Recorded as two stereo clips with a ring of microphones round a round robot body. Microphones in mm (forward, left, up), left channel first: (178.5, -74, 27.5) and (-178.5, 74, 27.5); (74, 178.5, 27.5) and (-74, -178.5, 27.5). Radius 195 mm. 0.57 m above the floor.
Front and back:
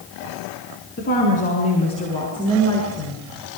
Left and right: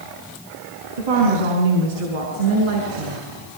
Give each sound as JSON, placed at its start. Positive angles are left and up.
{"t": 1.0, "sound": "a woman speaking", "azimuth_deg": -90, "distance_m": 6.5}